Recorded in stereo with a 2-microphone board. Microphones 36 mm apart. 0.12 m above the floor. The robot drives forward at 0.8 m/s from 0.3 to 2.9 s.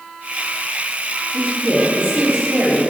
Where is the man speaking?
55° right (ahead or behind), 2.5 m; by 2.9 s 50° right (ahead or behind), 2.5 m.